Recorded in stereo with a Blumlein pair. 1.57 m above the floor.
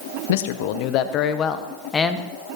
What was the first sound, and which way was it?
A man speaking, 55° left.